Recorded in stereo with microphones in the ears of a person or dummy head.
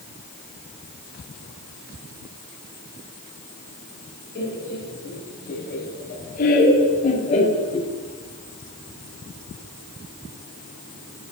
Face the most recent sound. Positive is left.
turn(degrees=30)  # may be behind; listen again after turning